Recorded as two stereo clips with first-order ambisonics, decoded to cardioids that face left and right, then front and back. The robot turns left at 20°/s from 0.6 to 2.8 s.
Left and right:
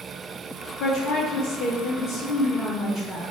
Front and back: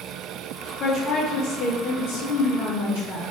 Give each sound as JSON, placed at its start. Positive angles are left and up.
{"t": 0.8, "sound": "a woman speaking", "azimuth_deg": 55, "distance_m": 1.6}